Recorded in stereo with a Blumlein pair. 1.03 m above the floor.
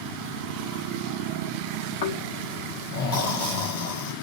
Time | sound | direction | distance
2.0 | snoring | 50° left | 1.5 m